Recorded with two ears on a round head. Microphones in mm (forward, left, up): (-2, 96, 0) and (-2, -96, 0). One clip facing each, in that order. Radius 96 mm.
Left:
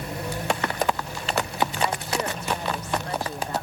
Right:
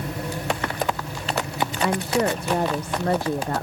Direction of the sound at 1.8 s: 50° right (ahead or behind).